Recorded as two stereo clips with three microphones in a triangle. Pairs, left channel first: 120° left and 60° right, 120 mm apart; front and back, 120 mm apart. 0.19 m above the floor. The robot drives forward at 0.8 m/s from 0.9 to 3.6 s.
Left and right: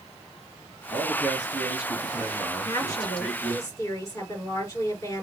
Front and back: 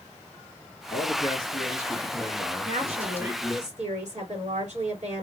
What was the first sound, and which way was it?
A man speaking, straight ahead.